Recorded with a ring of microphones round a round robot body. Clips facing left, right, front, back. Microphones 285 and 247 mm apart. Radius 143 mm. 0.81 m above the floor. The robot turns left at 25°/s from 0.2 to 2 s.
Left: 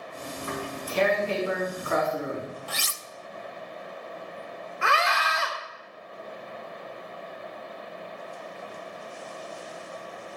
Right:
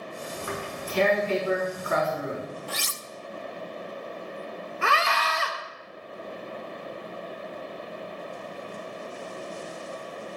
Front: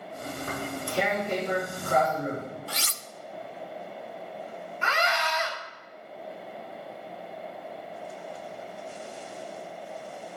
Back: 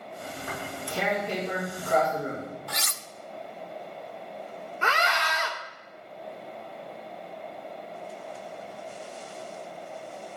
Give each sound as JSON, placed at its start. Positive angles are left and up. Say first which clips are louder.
{"t": 0.4, "sound": "tearing paper", "louder": "left 2 dB, front 4 dB", "azimuth_deg": -60, "distance_m": 6.0}
{"t": 2.7, "sound": "cutlery clinking", "louder": "right 3 dB, even", "azimuth_deg": 60, "distance_m": 0.6}
{"t": 4.8, "sound": "a scream", "louder": "even, even", "azimuth_deg": -140, "distance_m": 3.0}